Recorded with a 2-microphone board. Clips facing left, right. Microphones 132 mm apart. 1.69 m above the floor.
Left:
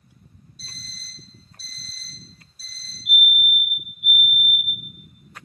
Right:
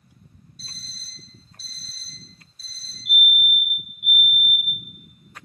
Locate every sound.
0.6 s an alarm clock: 5° left (ahead or behind), 1.4 m
3.0 s a fire alarm: centre (ahead or behind), 1.8 m